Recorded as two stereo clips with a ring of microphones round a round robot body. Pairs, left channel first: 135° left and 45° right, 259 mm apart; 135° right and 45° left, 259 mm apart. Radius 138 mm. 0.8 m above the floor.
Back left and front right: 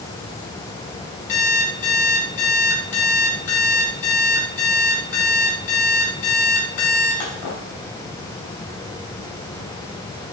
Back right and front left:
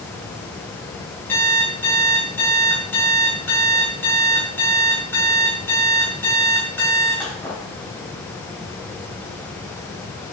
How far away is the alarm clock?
About 3 m.